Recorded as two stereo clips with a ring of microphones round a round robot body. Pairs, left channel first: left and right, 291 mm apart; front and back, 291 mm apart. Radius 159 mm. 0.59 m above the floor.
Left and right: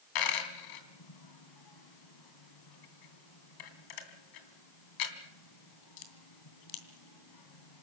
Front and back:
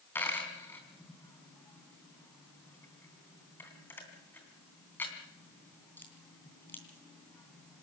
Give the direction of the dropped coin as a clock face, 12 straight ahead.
9 o'clock.